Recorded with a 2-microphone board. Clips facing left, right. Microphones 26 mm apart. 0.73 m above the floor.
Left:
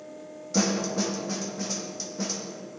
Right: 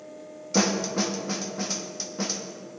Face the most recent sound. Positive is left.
turn(degrees=-30)  # may be behind; listen again after turning